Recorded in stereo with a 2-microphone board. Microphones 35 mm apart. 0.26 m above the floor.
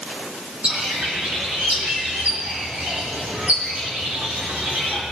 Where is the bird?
45° right (ahead or behind), 3 m.